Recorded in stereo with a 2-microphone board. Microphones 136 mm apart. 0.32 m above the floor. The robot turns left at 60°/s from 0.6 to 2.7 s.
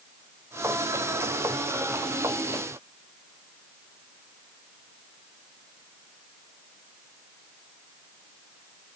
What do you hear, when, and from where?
Only background noise.